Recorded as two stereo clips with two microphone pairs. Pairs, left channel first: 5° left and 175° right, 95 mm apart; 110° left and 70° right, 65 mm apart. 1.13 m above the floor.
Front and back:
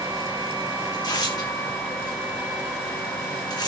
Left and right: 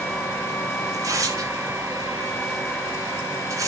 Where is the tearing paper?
40° right, 4.5 m.